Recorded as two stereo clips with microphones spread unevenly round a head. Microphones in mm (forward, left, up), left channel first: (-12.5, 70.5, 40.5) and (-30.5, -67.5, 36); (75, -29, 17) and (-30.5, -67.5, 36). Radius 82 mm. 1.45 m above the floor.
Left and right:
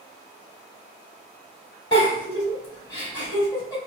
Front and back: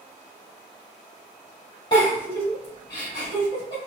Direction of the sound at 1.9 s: 60° left.